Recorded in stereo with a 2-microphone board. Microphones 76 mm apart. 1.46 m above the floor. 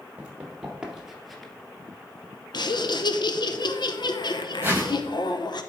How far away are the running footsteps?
About 2.5 m.